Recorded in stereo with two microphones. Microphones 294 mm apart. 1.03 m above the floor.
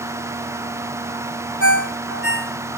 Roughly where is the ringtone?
Left.